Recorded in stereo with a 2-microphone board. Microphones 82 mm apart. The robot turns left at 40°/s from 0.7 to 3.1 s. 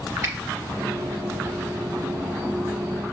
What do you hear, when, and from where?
0.2 s a finger snap: 35° right (ahead or behind), 0.8 m